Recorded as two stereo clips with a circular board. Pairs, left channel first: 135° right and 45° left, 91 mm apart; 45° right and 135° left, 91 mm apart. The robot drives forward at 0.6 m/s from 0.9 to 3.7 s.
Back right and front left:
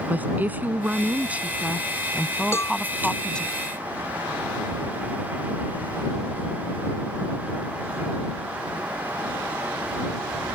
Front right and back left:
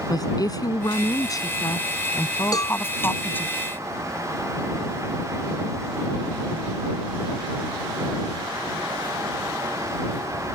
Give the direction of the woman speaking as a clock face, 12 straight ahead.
1 o'clock.